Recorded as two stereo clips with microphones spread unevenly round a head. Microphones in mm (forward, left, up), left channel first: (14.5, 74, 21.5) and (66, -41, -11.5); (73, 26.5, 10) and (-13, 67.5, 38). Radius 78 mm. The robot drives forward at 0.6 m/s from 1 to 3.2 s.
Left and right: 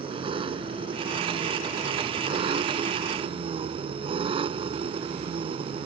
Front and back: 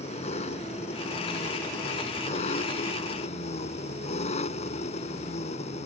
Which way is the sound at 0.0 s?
15° right.